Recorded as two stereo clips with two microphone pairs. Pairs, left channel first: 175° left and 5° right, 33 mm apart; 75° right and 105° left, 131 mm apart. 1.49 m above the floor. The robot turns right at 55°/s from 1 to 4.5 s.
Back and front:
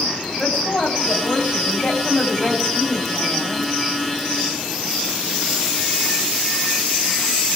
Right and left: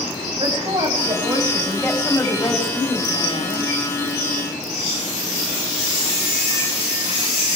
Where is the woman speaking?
150° left, 9 m; by 3.6 s 65° right, 9 m.